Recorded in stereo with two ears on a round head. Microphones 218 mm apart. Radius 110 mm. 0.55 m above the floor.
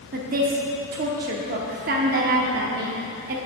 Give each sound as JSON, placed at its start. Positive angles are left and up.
{"t": 0.1, "sound": "a woman speaking", "side_deg": -40, "distance_m": 0.8}